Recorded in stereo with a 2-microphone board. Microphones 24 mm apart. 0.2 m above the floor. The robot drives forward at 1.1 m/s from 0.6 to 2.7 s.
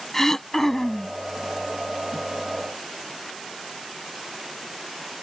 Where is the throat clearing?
20° left (ahead or behind).